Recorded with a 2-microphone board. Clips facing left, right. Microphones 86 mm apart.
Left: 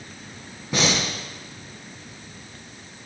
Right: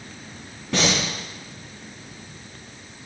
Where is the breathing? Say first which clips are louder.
Right 1 dB; 5° left (ahead or behind), 3.5 m.